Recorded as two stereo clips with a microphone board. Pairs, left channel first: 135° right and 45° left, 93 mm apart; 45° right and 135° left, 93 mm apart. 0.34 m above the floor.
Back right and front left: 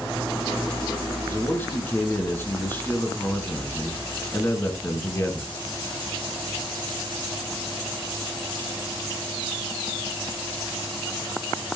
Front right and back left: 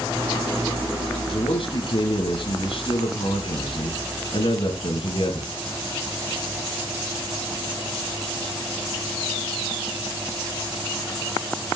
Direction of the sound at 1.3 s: 65° right.